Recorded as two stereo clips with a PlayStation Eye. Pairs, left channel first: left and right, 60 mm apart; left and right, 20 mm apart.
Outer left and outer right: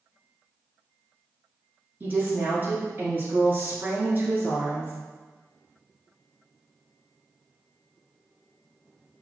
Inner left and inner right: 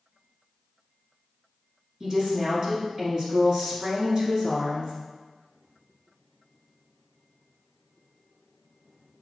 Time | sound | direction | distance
2.0 | a woman speaking | 35° right (ahead or behind) | 1.5 m